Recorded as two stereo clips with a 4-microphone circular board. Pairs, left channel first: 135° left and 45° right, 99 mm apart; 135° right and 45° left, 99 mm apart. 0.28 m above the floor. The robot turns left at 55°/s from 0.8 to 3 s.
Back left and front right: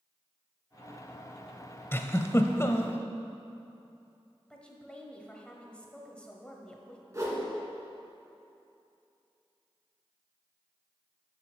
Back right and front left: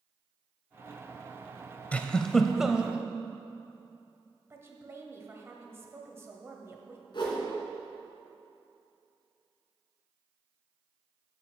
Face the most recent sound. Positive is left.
turn(degrees=-100)